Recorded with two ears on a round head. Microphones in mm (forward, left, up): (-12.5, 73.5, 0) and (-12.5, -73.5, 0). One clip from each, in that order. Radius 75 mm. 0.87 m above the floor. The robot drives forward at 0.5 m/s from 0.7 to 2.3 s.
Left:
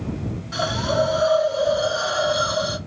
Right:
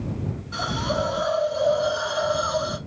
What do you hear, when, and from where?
0.5 s a hiss: 35° left (ahead or behind), 2.5 m; by 2.8 s 50° left (ahead or behind), 1.8 m